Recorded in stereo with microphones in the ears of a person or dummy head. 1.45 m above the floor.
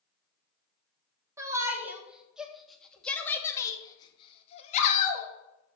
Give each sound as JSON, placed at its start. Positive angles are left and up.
{"t": 1.4, "sound": "a shout", "side_deg": -15, "distance_m": 3.0}